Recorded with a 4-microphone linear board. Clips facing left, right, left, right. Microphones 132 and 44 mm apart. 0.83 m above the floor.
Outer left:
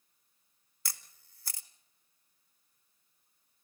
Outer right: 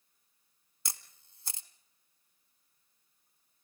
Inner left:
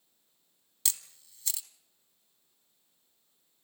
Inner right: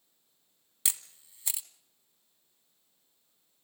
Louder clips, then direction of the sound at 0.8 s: Outer right 1 dB, inner right 1 dB; 20° right (ahead or behind).